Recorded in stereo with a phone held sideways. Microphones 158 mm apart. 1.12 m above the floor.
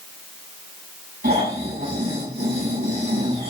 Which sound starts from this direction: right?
Snoring, at 1.2 s.